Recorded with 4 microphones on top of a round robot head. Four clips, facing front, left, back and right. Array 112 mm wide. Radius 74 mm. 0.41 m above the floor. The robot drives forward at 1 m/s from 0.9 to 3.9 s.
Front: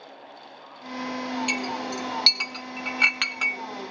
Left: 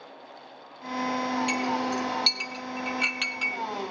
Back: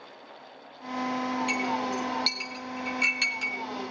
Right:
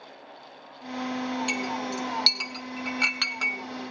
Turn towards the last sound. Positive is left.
turn(degrees=-60)